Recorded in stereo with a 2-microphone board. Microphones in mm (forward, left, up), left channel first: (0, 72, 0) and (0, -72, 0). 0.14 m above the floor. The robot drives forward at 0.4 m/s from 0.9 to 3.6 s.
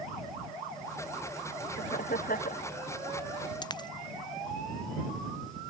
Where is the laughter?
80° left.